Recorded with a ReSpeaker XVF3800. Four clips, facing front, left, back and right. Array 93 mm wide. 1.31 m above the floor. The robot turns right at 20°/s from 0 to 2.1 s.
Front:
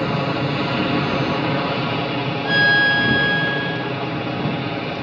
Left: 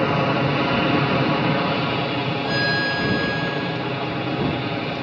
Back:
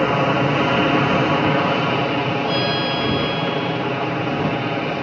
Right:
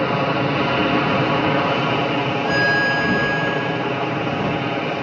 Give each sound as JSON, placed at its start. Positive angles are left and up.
{"t": 0.0, "sound": "an aircraft", "azimuth_deg": -170}
{"t": 2.5, "sound": "a violin", "azimuth_deg": -20}